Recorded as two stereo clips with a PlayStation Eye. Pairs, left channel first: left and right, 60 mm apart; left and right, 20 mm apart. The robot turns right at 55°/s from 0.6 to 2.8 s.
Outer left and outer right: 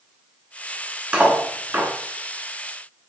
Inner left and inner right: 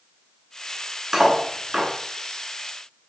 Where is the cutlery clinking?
15° right (ahead or behind), 0.9 m; by 1.9 s 35° right (ahead or behind), 0.9 m.